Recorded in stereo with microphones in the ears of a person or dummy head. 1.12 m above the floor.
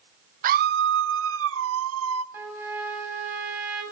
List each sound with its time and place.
0.4 s a scream: 40° right (ahead or behind), 0.6 m; by 2.2 s 75° right (ahead or behind), 1.6 m
2.3 s a trumpet: 10° right (ahead or behind), 8 m